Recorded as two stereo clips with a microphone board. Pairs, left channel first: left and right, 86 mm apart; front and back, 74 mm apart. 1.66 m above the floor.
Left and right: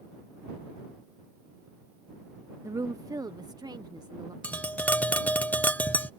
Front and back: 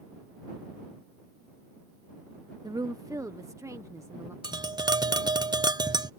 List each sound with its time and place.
2.6 s a woman speaking: 145° right; by 4.3 s 130° right
4.4 s tapping: 160° left